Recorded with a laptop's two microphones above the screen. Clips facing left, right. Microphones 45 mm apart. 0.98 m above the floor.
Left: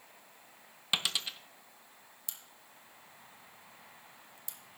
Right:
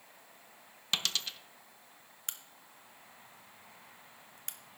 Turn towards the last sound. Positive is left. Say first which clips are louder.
# right 6 dB
turn(degrees=-55)  # may be behind; listen again after turning